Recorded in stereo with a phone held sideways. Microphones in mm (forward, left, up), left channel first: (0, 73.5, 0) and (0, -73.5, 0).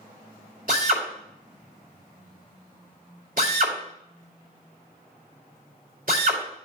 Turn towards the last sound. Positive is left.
turn(degrees=-60)  # may be behind; listen again after turning